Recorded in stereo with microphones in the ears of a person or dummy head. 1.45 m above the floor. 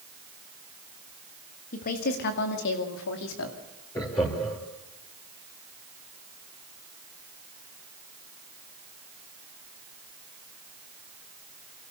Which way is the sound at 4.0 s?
25° left (ahead or behind).